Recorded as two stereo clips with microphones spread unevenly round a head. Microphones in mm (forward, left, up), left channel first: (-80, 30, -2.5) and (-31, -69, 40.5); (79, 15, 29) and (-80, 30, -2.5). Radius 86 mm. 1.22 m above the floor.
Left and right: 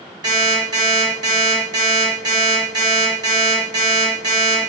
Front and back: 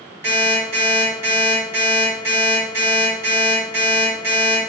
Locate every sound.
0.2 s an alarm clock: 110° right, 1.7 m